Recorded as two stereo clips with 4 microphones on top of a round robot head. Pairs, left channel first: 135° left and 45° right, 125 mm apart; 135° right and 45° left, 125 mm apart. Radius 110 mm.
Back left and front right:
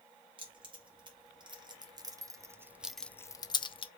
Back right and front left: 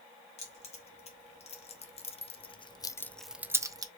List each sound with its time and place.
0.4 s keys jangling: 95° right, 2 m; by 3.9 s 100° left, 0.8 m